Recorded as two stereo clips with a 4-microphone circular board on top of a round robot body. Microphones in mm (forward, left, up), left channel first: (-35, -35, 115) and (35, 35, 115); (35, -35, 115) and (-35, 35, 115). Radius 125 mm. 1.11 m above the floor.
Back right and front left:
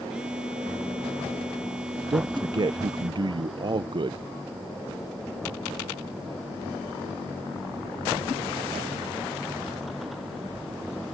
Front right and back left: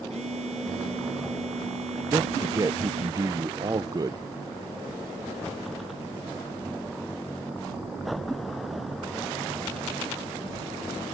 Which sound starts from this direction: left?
A man speaking, at 2.1 s.